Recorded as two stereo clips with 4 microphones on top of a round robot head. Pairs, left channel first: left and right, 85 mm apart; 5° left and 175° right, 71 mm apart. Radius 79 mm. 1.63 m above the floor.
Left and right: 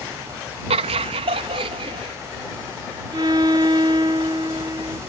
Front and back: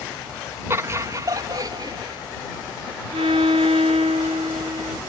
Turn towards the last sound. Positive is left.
turn(degrees=-150)